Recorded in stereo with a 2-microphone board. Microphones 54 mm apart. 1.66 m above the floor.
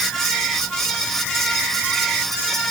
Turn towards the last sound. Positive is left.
No sound to turn to.